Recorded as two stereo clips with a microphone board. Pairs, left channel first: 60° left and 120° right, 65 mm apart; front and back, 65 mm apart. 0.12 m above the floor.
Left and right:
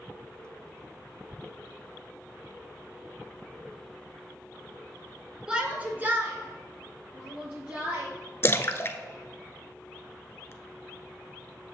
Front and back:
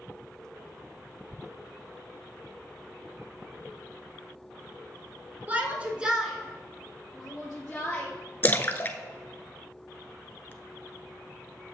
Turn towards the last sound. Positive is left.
turn(degrees=40)